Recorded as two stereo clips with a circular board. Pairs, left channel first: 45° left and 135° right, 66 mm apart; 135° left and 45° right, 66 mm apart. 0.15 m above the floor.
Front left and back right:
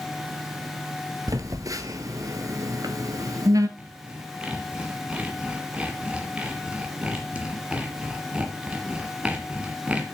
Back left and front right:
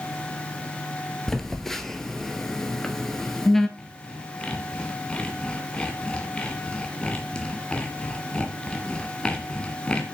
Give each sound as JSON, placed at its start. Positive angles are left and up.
{"t": 1.3, "sound": "a phone buzzing", "azimuth_deg": -140, "distance_m": 0.9}
{"t": 3.8, "sound": "sawing", "azimuth_deg": -175, "distance_m": 1.6}